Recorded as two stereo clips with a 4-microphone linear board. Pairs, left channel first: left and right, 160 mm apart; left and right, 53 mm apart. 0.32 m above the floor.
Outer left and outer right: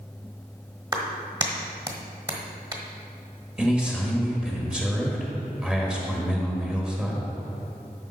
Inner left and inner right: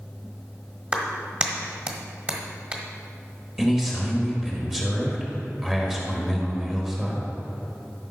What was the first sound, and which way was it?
A clap, 25° right (ahead or behind).